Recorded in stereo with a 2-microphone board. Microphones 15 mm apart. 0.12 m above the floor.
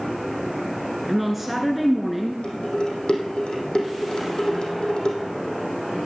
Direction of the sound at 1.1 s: Centre (ahead or behind).